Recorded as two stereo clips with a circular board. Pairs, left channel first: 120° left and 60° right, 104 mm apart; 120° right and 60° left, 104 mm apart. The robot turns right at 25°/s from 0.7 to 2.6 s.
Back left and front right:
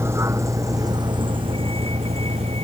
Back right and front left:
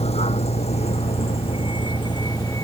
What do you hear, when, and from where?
0.0 s a vehicle: 125° right; by 2.7 s 60° right